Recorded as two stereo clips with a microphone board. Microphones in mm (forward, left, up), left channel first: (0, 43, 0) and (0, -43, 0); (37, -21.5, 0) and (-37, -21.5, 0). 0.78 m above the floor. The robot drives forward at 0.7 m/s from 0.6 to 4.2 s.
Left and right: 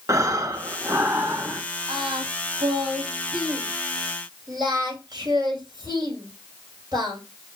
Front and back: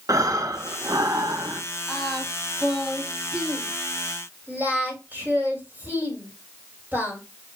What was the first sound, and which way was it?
Breathing, 140° right.